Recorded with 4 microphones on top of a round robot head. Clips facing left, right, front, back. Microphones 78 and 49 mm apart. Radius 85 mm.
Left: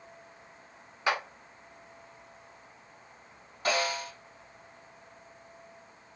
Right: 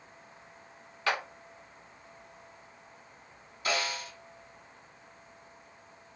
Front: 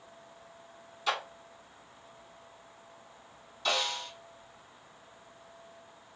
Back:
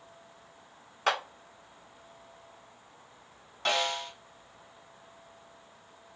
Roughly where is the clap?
Behind.